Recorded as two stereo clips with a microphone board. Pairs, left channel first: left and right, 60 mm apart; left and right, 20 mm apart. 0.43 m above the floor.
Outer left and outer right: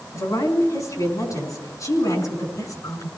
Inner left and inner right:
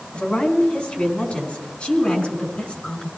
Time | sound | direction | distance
0.1 | a woman speaking | 75° left (ahead or behind) | 4.5 m